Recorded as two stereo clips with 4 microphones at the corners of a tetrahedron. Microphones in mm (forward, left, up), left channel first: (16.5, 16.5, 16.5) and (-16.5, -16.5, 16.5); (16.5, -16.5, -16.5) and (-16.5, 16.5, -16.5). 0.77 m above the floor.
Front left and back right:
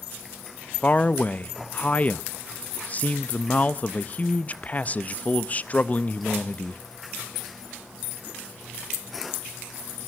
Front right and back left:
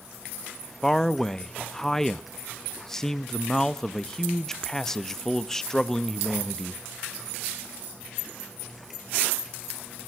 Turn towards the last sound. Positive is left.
turn(degrees=30)